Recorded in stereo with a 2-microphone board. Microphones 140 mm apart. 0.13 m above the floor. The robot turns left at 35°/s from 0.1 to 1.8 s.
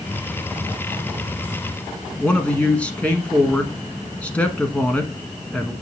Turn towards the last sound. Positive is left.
turn(degrees=10)  # may be behind; listen again after turning